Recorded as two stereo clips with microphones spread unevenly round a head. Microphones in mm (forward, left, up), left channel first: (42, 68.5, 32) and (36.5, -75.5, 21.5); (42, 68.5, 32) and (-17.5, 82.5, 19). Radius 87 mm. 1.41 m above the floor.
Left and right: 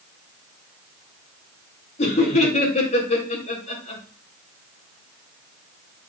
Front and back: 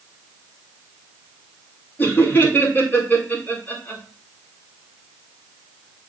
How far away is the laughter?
About 5 m.